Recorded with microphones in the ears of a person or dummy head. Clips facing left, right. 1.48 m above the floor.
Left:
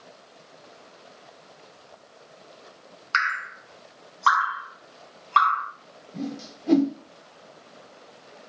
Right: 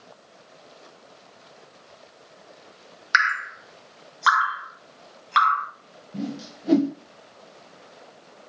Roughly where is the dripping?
Right.